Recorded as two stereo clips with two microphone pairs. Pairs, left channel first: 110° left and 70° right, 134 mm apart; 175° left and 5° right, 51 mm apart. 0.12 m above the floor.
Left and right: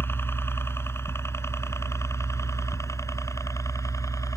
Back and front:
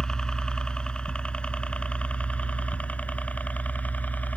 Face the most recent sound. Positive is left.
turn(degrees=155)